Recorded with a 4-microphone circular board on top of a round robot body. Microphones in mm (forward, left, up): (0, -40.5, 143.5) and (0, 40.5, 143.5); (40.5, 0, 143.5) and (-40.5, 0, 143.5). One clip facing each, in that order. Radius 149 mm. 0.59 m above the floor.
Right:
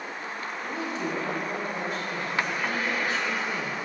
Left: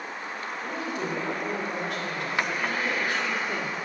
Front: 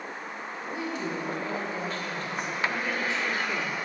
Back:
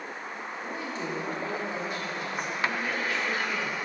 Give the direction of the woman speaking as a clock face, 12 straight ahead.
8 o'clock.